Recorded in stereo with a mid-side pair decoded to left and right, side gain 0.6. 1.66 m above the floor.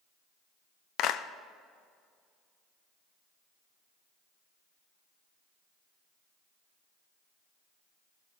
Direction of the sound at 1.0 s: 65° left.